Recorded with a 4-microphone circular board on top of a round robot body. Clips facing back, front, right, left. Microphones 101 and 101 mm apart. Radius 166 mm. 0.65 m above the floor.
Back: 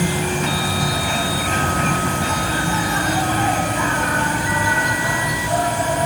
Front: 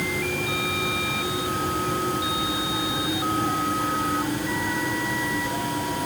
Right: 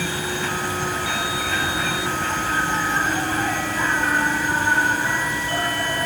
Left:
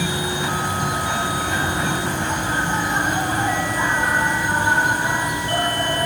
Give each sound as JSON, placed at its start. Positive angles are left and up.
{"t": 0.0, "sound": "an insect", "azimuth_deg": 165}